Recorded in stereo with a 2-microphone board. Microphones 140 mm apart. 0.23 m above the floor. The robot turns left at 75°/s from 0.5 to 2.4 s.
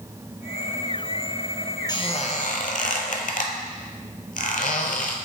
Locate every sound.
1.9 s a squeak: 30° left (ahead or behind), 0.7 m; by 5.2 s 65° left (ahead or behind), 0.7 m